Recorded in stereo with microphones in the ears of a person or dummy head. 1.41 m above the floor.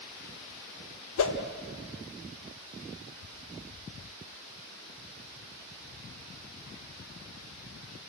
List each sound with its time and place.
1.2 s a whoosh: 80° left, 1.6 m